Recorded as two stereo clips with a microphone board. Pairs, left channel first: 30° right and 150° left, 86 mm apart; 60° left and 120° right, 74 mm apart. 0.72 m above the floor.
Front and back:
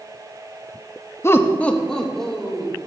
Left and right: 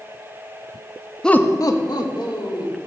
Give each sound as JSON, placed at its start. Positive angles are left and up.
{"t": 1.2, "sound": "laughter", "azimuth_deg": -15, "distance_m": 0.6}